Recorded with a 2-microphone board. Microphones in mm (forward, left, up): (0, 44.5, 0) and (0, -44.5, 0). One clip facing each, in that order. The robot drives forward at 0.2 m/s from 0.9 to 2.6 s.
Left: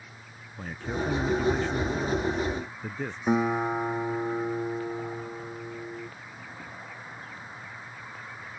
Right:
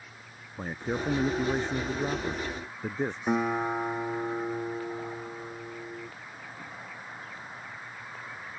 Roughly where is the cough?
I don't hear a cough.